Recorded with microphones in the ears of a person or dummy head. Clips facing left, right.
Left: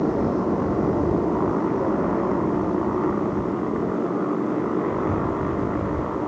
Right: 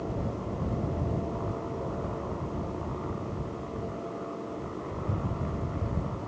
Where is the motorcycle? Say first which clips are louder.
Left 13 dB; 85° left; by 6.3 s 75° left (ahead or behind).